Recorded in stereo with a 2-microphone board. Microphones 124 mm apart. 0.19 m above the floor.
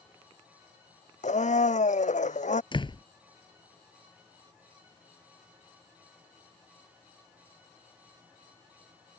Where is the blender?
75° left (ahead or behind).